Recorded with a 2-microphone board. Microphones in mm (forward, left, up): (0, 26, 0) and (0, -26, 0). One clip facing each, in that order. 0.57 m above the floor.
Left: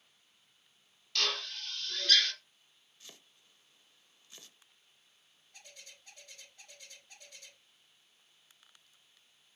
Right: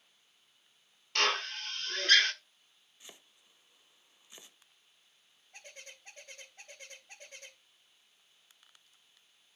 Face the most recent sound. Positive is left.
turn(degrees=-45)  # may be behind; listen again after turning